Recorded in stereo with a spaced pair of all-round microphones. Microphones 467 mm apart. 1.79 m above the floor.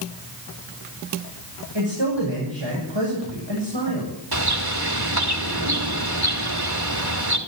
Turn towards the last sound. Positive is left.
turn(degrees=-55)  # may be behind; listen again after turning